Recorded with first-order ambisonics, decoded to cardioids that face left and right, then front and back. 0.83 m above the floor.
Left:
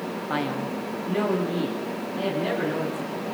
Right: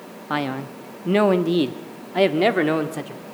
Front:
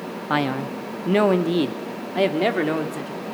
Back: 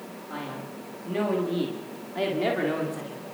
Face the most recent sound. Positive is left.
turn(degrees=-70)